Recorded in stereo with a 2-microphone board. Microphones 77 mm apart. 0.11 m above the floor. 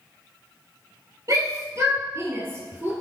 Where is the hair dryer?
I don't hear a hair dryer.